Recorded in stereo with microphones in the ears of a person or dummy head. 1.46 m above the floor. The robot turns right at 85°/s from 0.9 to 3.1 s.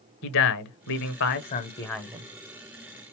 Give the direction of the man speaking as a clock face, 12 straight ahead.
9 o'clock.